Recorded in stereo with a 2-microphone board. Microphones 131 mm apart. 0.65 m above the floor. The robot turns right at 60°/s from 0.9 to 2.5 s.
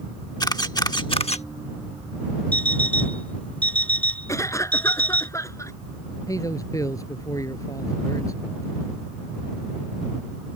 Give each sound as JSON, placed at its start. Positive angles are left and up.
{"t": 0.4, "sound": "a camera shutter", "side_deg": 30}
{"t": 2.5, "sound": "an alarm clock", "side_deg": 10}
{"t": 4.3, "sound": "a cough", "side_deg": 25}
{"t": 6.3, "sound": "a man speaking", "side_deg": 25}